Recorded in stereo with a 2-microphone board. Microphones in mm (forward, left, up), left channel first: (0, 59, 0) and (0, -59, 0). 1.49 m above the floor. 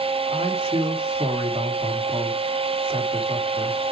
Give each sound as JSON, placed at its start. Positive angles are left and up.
{"t": 0.3, "sound": "a man speaking", "side_deg": -50, "distance_m": 3.0}